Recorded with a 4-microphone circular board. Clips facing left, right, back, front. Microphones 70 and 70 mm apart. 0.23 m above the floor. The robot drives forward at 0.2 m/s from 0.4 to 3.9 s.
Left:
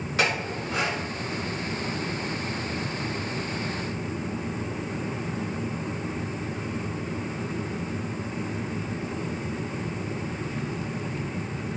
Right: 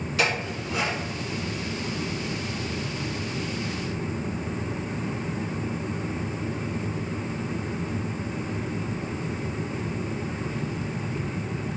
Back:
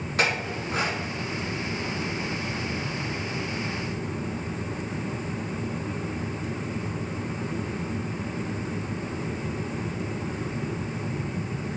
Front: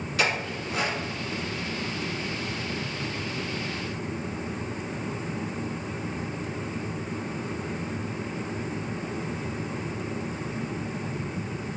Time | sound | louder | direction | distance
0.2 | a clink | even, back 1 dB | 145° left | 1.9 m